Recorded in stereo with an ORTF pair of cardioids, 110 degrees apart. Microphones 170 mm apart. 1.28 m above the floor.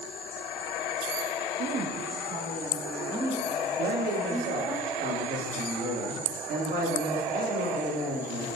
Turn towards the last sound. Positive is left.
turn(degrees=-55)